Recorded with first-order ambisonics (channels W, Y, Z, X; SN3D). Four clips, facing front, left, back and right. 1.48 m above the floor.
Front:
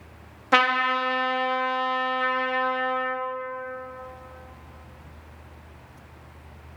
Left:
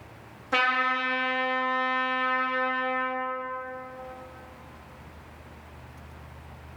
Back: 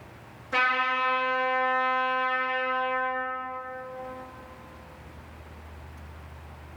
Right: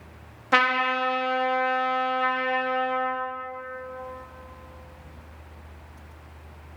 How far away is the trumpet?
About 0.5 m.